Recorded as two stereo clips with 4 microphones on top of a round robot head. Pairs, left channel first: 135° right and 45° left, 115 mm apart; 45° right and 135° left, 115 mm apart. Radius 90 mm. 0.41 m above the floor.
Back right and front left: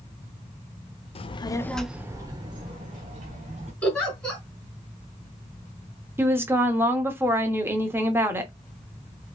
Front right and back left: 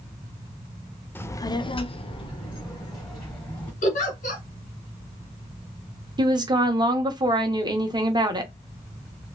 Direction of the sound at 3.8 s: 55° right.